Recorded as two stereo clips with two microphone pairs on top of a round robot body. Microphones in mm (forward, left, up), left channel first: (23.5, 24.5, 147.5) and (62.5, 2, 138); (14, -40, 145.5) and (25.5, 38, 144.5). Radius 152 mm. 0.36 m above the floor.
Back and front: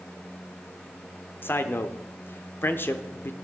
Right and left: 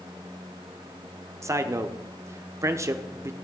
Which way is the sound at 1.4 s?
115° left.